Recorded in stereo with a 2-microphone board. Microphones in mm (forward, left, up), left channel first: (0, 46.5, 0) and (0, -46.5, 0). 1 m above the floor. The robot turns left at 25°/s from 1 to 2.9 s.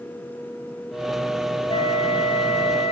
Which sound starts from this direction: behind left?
A flute, at 1.7 s.